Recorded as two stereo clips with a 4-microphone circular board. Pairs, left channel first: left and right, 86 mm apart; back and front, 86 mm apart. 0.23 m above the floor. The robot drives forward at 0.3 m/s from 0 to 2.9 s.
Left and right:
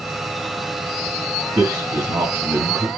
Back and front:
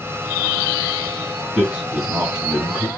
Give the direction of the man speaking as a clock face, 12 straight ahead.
2 o'clock.